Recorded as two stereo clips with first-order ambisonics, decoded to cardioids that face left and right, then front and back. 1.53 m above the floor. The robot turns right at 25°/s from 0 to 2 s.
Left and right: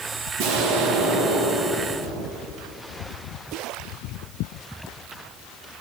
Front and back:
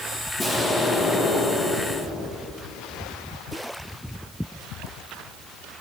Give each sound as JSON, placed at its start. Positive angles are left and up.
{"t": 0.4, "sound": "an explosion", "azimuth_deg": -80, "distance_m": 1.6}